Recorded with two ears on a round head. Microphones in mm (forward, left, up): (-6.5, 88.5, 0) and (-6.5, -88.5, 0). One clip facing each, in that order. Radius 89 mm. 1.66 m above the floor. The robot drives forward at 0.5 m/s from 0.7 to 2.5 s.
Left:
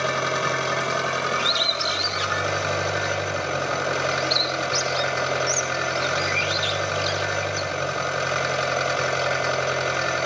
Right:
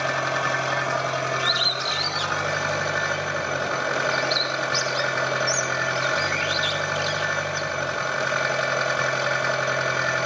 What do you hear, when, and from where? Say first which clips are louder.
0.0 s an engine running: left 1 dB; 50° left (ahead or behind), 3.5 m; by 10.3 s 40° left (ahead or behind), 4 m
1.4 s a bird: left 1 dB; 35° left (ahead or behind), 2.5 m; by 7.6 s 30° left (ahead or behind), 2.5 m